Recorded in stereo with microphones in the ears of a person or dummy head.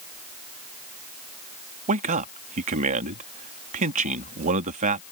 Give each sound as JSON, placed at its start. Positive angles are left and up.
{"t": 1.9, "sound": "a man speaking", "side_deg": -40}